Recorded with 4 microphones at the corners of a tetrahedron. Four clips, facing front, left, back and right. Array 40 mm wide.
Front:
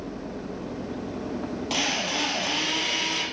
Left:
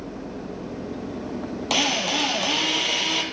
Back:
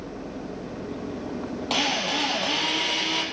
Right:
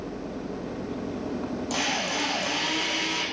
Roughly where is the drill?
Left.